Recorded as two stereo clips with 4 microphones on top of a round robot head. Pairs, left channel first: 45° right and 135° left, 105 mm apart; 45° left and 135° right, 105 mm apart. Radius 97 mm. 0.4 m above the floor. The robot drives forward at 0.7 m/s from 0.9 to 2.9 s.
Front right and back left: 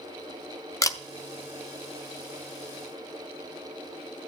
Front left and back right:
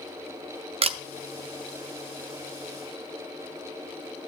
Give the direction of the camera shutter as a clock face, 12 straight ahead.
3 o'clock.